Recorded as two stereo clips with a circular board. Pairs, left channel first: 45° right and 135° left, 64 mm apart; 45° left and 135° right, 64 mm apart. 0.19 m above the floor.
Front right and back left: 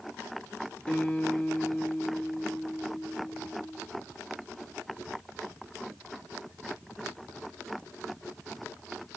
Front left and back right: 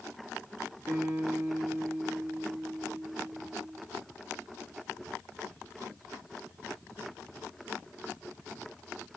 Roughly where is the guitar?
Right.